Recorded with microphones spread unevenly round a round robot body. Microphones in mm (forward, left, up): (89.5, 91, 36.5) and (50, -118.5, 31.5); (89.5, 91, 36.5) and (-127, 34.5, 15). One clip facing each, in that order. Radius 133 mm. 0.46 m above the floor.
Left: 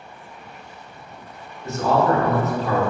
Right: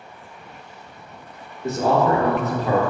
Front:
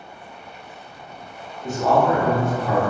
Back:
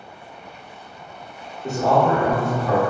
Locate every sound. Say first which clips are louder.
1.6 s a man speaking: right 1 dB, even; 105° right, 1.0 m